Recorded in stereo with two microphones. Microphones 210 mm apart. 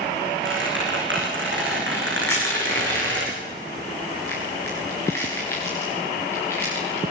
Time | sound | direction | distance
0.5 | a squeak | 80° right | 9 m
2.3 | crushing | 10° left (ahead or behind) | 8.5 m